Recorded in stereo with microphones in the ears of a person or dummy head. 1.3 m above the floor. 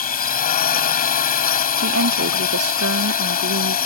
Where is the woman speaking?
80° right.